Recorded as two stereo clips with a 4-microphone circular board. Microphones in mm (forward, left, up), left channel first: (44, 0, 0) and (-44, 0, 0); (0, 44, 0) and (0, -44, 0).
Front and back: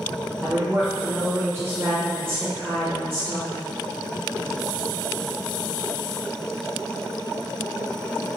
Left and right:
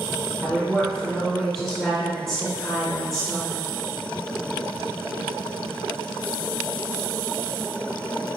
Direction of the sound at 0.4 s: 175° left.